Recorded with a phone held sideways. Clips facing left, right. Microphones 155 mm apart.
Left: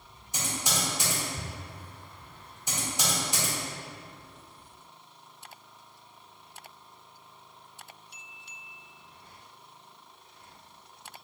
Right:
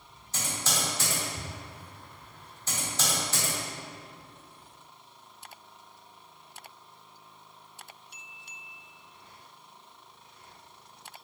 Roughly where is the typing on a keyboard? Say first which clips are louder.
Left 1 dB; centre.